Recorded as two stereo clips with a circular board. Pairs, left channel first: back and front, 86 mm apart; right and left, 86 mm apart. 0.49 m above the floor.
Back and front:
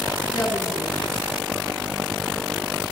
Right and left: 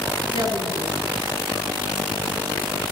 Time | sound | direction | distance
0.3 | a woman speaking | 80° right | 7 m